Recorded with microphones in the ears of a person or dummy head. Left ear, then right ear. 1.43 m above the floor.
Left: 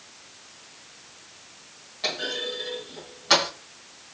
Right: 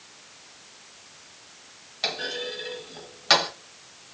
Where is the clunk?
30° right (ahead or behind), 1.9 m.